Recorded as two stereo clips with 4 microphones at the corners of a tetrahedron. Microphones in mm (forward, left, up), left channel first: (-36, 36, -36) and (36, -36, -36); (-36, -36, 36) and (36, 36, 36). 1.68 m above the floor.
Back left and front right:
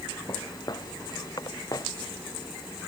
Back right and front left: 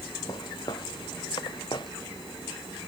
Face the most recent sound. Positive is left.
turn(degrees=-175)